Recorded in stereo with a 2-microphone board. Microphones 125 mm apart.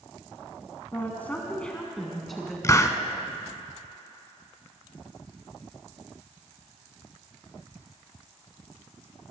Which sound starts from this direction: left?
A hiss, at 2.6 s.